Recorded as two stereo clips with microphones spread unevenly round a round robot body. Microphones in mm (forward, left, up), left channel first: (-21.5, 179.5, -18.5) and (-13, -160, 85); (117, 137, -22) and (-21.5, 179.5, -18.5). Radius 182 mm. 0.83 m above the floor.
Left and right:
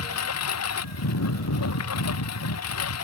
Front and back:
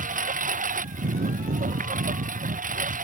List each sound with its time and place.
0.0 s a lawn mower: 140° left